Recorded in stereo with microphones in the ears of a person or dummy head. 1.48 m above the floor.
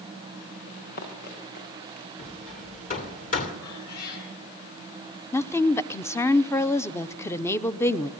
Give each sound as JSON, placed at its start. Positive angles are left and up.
{"t": 0.7, "sound": "running footsteps", "side_deg": 60, "distance_m": 7.5}
{"t": 2.2, "sound": "hammering", "side_deg": 45, "distance_m": 2.0}
{"t": 3.6, "sound": "a cat meowing", "side_deg": 55, "distance_m": 9.5}
{"t": 5.3, "sound": "a woman speaking", "side_deg": 15, "distance_m": 0.7}